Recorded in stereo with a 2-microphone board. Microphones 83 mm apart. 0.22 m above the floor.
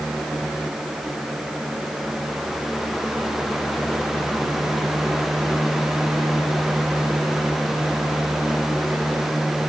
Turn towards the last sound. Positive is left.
No sound to turn to.